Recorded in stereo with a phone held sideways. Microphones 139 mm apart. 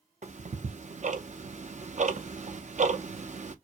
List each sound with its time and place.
0.2 s ticking: 60° right (ahead or behind), 0.6 m